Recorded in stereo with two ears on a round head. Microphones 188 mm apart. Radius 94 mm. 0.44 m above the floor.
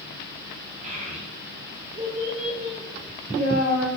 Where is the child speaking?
35° right (ahead or behind), 0.9 m.